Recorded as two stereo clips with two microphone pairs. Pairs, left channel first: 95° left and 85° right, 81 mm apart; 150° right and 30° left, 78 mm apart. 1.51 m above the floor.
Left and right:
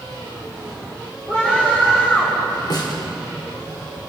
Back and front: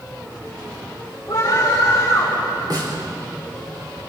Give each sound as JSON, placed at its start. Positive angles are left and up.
{"t": 1.3, "sound": "a scream", "azimuth_deg": 155, "distance_m": 6.0}
{"t": 2.7, "sound": "a snare drum", "azimuth_deg": 65, "distance_m": 4.5}